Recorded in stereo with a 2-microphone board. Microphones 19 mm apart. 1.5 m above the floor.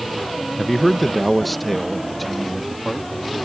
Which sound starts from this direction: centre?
A man speaking, at 0.6 s.